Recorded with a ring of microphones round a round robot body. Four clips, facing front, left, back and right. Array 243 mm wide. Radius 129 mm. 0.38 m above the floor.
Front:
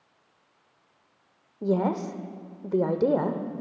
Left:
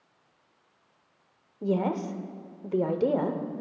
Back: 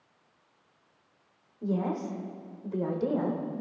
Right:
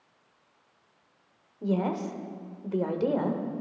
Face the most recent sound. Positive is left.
turn(degrees=30)